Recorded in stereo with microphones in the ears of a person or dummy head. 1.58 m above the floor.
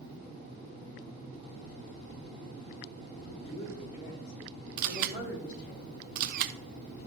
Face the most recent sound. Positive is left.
turn(degrees=-50)  # may be behind; listen again after turning